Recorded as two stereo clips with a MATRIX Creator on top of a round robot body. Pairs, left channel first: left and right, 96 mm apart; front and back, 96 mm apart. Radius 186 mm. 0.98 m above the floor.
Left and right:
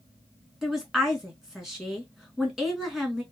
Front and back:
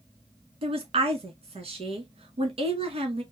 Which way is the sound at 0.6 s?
175° right.